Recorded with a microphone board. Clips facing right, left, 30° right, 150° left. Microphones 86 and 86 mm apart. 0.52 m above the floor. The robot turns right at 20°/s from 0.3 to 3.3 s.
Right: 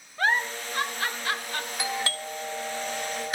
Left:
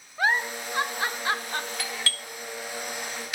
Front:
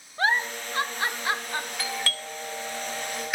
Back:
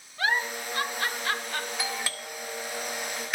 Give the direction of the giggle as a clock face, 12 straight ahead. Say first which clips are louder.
Even, front 3 dB; 12 o'clock.